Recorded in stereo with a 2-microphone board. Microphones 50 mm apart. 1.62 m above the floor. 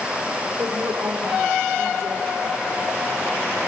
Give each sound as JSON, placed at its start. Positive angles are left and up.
{"t": 0.6, "sound": "a woman speaking", "side_deg": -55, "distance_m": 5.0}